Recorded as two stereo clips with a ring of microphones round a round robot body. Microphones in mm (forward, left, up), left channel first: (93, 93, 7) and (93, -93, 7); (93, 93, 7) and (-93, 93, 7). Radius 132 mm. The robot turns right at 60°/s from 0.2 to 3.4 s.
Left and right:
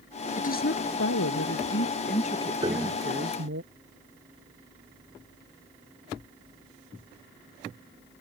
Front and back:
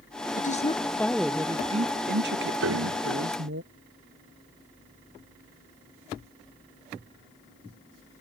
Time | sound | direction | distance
0.4 | a woman speaking | 40° left | ?
2.6 | a piano | 165° right | ?